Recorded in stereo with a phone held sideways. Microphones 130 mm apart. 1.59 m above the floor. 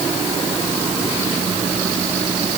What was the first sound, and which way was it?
Only background noise.